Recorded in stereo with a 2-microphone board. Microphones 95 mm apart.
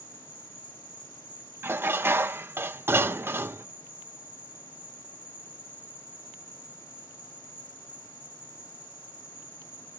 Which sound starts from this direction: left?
An insect, at 0.0 s.